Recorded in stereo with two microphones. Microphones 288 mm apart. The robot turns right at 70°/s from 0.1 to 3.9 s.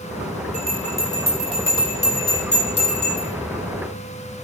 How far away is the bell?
About 0.8 m.